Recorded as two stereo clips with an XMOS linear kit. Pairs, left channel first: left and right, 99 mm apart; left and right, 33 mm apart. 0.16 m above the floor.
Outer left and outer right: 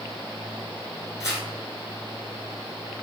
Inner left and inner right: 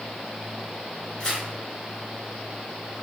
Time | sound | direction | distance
1.2 | tearing paper | 30° left (ahead or behind) | 1.8 m